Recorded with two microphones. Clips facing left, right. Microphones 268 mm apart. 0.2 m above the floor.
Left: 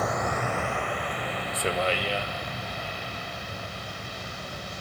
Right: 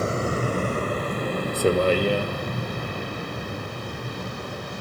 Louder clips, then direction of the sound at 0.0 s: Right 4 dB; 30° right (ahead or behind).